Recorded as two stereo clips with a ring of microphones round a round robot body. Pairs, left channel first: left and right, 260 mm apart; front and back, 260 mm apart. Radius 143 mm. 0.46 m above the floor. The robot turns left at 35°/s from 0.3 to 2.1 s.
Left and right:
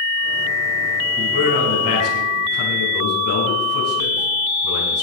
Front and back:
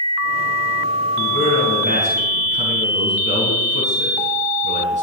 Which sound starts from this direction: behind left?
A man speaking, at 1.2 s.